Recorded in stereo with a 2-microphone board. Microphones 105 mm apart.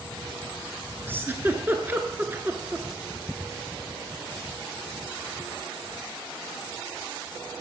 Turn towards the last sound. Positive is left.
turn(degrees=-20)  # may be behind; listen again after turning